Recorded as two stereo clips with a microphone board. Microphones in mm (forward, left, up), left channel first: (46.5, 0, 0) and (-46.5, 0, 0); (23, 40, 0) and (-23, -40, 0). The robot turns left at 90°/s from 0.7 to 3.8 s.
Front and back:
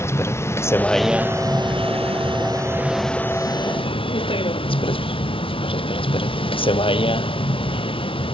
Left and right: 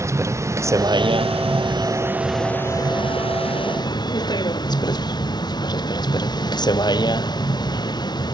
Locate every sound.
0.0 s a vehicle: 60° right; by 8.3 s 20° left